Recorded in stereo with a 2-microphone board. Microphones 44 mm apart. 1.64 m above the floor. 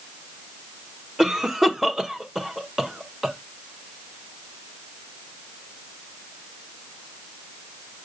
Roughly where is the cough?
Centre.